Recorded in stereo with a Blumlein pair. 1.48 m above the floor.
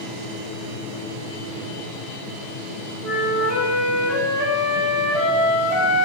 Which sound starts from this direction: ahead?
A flute, at 3.0 s.